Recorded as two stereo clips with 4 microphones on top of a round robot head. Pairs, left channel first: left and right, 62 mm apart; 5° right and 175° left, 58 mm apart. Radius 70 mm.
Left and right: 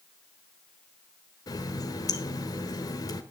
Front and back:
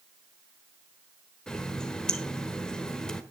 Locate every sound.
1.5 s a running tap: 70° left, 1.4 m